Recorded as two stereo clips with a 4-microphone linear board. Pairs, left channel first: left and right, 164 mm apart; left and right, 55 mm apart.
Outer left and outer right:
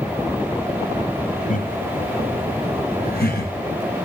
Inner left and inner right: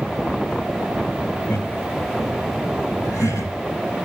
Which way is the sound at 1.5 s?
50° left (ahead or behind).